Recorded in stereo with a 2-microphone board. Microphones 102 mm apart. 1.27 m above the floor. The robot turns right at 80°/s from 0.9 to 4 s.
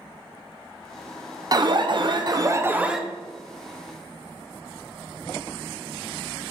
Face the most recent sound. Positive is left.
turn(degrees=75)